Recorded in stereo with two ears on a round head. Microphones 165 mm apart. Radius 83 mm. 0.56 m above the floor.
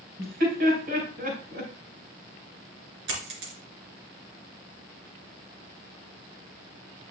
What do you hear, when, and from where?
0.2 s laughter: 50° right (ahead or behind), 4 m
3.1 s a dropped coin: 70° right (ahead or behind), 2.5 m